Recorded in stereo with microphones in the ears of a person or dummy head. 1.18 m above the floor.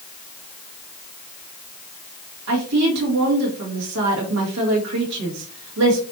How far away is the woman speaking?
About 1.8 m.